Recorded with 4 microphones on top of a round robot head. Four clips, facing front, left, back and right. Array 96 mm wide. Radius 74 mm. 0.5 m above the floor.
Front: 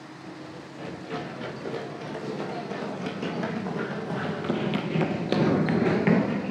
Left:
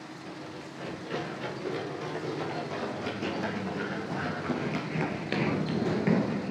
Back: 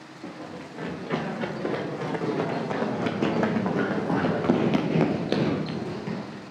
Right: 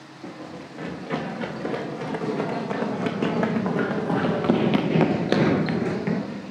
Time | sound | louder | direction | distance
0.2 | running footsteps | right 7 dB, back 5 dB | 135° right | 4.5 m